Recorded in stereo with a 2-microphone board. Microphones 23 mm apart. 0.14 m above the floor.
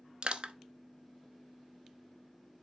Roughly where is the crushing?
Right.